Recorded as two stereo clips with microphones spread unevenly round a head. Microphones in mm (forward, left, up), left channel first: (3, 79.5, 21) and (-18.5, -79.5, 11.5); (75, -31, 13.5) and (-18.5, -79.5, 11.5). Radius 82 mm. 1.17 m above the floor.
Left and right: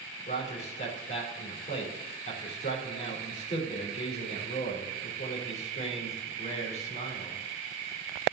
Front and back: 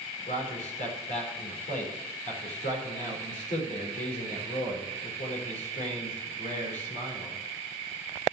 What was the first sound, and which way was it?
A man speaking, 35° left.